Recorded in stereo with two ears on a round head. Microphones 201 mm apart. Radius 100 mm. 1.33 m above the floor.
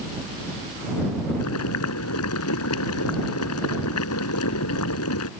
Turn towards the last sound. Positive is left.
turn(degrees=70)  # may be behind; listen again after turning